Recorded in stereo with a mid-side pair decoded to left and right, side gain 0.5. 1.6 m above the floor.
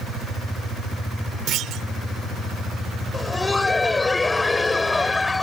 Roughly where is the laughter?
Ahead.